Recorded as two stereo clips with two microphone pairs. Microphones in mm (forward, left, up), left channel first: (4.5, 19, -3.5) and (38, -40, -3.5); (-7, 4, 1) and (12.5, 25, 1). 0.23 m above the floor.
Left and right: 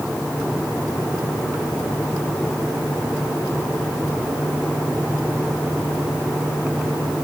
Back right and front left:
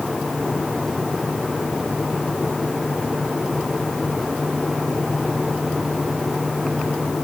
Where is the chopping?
No chopping in this recording.